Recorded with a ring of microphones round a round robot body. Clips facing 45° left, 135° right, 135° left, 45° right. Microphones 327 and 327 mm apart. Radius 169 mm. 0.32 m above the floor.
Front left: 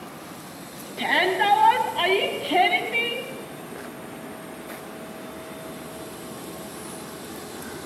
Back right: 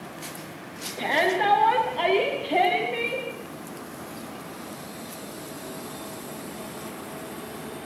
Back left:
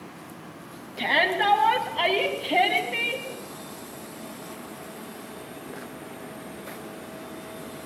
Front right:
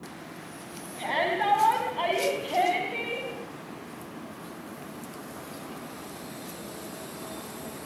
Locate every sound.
1.0 s a shout: 105° left, 3 m